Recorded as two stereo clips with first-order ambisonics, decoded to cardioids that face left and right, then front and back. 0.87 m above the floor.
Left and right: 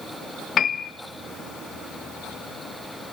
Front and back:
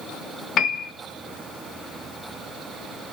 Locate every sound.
0.6 s a piano: 40° left, 1.2 m